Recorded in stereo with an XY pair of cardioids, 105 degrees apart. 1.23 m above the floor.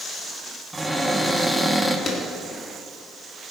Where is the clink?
No clink in this recording.